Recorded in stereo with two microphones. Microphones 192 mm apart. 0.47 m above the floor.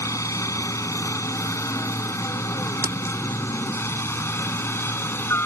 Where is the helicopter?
15° left (ahead or behind); by 5.5 s 10° left (ahead or behind).